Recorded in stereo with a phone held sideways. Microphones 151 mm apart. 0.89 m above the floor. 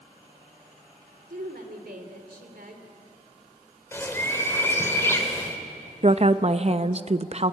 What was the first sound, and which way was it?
A woman speaking, 80° right.